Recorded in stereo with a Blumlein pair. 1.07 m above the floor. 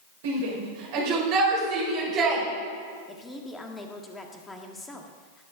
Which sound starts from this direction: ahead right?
A shout, at 0.2 s.